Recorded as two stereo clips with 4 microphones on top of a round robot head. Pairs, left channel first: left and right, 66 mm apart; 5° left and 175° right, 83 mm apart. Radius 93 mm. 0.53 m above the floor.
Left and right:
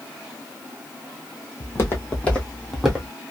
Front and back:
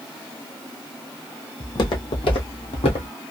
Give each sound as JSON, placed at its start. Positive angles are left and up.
{"t": 1.6, "sound": "footsteps", "azimuth_deg": 45, "distance_m": 1.6}